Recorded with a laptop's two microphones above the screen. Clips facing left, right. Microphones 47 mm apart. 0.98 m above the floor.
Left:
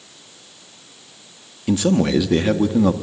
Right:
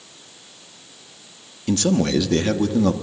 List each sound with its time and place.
1.7 s a man speaking: 10° left (ahead or behind), 1.6 m